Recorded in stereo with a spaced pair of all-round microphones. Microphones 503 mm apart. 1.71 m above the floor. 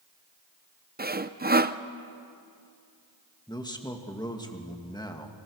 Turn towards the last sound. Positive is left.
turn(degrees=10)  # may be behind; listen again after turning